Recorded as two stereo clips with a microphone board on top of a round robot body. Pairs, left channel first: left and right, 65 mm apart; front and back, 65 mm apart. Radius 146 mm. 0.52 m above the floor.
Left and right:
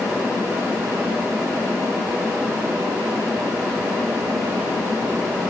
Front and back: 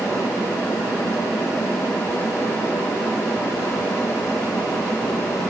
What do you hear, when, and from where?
Only background noise.